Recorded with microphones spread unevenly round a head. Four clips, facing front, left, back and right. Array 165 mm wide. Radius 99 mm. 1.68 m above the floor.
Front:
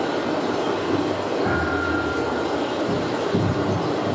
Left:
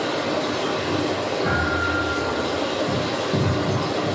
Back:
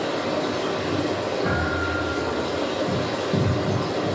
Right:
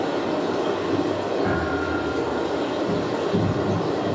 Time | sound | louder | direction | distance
0.0 | running water | even, front 2 dB | 155° right | 1.8 m
1.4 | a thud | left 1 dB, front 2 dB | 135° right | 2.5 m